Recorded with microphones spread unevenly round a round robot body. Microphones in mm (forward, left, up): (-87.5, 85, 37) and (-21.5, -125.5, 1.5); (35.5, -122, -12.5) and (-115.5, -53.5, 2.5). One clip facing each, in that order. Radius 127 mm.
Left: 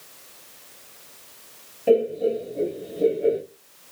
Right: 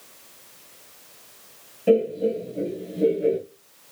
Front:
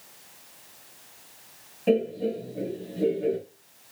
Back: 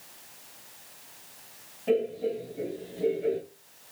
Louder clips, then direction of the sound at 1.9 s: Even, front 3 dB; 5° left.